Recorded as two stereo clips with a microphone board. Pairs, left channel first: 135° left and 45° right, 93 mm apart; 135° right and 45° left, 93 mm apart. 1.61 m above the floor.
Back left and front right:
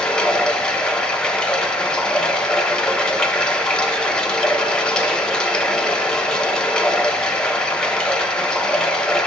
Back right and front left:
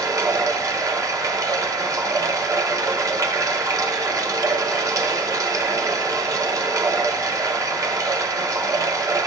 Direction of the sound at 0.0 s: 60° left.